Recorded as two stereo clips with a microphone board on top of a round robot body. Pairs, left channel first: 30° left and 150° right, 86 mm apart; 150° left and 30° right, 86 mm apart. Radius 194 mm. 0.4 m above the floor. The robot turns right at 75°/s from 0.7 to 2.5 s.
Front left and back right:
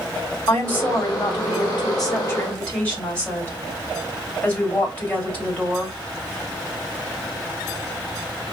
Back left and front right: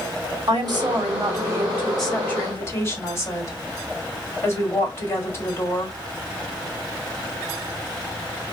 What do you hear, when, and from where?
0.5 s a woman speaking: 35° right, 2 m; by 6.0 s 100° left, 2 m